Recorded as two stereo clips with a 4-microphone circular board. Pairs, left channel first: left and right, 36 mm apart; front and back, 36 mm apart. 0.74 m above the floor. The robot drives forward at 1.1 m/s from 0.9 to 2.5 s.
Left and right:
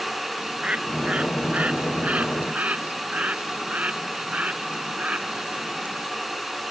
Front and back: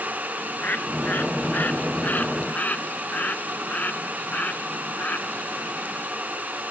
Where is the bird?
40° right; by 6.1 s 45° right.